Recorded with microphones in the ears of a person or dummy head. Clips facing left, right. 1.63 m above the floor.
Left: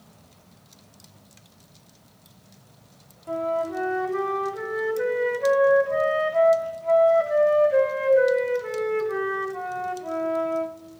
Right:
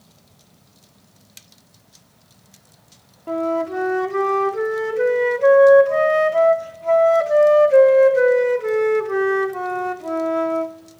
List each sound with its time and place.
3.3 s a flute: 55° right (ahead or behind), 0.6 m